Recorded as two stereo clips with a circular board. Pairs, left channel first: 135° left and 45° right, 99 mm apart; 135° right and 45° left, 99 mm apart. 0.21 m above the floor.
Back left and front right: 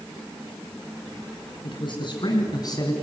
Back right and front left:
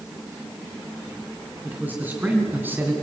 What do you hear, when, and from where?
1.6 s a man speaking: 115° left, 3 m; by 2.9 s 105° left, 2 m